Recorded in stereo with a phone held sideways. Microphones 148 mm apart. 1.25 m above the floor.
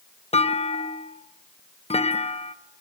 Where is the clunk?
45° left (ahead or behind), 0.7 m.